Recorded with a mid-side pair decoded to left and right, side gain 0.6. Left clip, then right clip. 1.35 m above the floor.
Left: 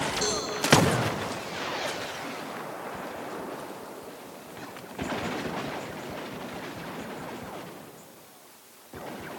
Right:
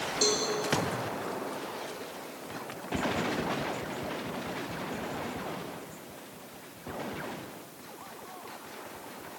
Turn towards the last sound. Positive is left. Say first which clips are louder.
# right 6 dB
turn(degrees=-25)